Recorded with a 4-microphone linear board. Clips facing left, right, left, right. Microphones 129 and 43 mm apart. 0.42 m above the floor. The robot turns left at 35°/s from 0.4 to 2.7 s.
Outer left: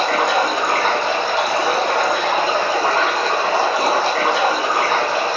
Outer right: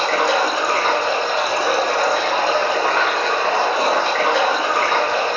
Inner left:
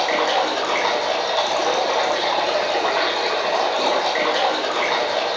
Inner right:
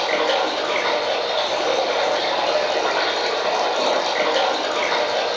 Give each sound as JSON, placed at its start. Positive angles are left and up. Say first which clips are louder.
{"t": 0.0, "sound": "running water", "louder": "even, even", "azimuth_deg": 115, "distance_m": 1.8}